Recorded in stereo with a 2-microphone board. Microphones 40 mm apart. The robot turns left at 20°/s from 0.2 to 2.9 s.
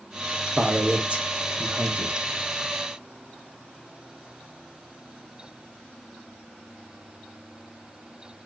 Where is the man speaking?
30° right (ahead or behind), 1.0 m; by 2.2 s 35° right (ahead or behind), 1.0 m.